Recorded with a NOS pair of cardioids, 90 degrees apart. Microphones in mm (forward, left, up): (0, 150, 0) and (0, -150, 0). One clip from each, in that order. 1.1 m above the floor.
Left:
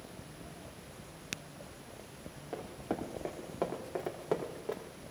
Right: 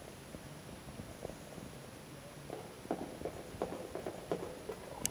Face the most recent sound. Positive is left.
turn(degrees=30)